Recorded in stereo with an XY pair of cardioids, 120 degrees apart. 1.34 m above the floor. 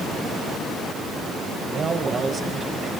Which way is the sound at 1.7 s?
40° right.